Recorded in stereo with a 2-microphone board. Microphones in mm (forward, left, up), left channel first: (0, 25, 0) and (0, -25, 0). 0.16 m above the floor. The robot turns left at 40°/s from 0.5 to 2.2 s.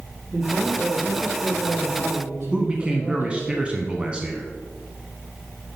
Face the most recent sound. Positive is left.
turn(degrees=-25)  # may be behind; listen again after turning